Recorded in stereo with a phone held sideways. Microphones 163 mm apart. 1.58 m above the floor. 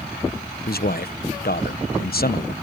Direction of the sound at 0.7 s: 70° left (ahead or behind).